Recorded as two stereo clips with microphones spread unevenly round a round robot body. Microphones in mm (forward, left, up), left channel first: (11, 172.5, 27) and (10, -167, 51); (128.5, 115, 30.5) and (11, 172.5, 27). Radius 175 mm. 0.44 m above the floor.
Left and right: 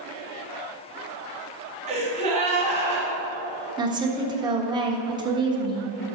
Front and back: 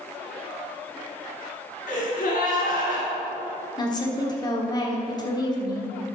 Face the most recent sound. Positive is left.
turn(degrees=-20)